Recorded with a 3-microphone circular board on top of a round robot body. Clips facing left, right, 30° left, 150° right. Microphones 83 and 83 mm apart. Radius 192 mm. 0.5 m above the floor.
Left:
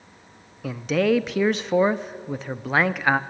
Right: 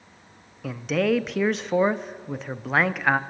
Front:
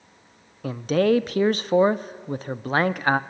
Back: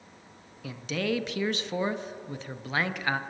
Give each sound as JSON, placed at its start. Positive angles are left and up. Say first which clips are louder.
{"t": 0.6, "sound": "a man speaking", "louder": "left 2 dB, front 11 dB", "azimuth_deg": 0, "distance_m": 0.9}